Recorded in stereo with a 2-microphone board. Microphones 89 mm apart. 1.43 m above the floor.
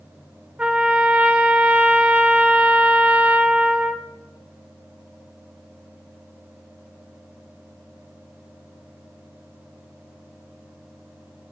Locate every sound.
0.6 s a trumpet: 15° right (ahead or behind), 0.5 m